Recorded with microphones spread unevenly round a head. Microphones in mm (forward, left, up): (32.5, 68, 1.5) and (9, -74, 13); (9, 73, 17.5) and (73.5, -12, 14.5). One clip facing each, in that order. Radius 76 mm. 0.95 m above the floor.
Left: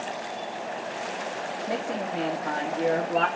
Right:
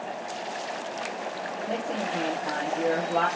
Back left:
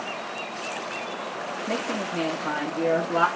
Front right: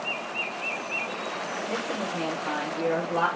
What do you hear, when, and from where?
1.7 s a woman speaking: 160° left, 1.1 m